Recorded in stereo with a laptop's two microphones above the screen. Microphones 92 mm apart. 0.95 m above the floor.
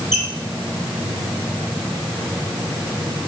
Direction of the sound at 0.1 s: 20° right (ahead or behind).